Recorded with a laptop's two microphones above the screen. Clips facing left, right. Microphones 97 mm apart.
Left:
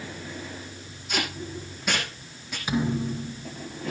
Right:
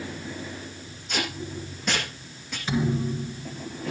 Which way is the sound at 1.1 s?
5° left (ahead or behind).